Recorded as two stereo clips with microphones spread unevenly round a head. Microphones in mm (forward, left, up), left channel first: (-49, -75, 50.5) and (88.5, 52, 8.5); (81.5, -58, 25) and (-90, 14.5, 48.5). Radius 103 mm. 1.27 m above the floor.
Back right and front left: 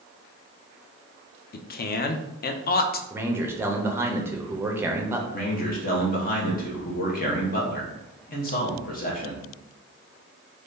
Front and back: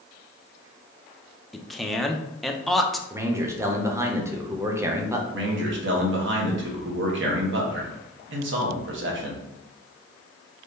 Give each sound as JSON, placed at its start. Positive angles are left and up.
{"t": 1.5, "sound": "a man speaking", "azimuth_deg": -105, "distance_m": 0.5}
{"t": 3.1, "sound": "a man speaking", "azimuth_deg": 80, "distance_m": 0.6}
{"t": 5.3, "sound": "a man speaking", "azimuth_deg": 175, "distance_m": 1.0}